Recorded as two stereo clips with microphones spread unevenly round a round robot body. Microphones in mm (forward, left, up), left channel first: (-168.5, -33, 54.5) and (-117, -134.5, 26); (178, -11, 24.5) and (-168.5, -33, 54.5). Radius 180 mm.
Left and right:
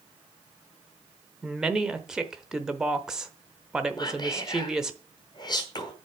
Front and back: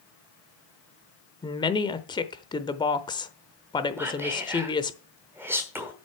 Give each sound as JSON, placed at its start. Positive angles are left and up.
{"t": 1.4, "sound": "a woman speaking", "azimuth_deg": -35, "distance_m": 0.8}
{"t": 4.0, "sound": "whispering", "azimuth_deg": 95, "distance_m": 1.2}